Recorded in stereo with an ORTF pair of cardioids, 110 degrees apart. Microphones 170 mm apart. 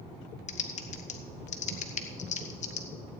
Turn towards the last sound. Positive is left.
turn(degrees=45)